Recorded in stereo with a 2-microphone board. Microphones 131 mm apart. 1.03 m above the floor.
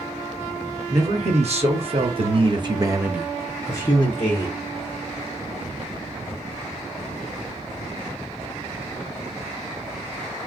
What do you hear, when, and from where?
0.9 s a man speaking: 55° right (ahead or behind), 1.6 m; by 4.6 s 45° left (ahead or behind), 0.9 m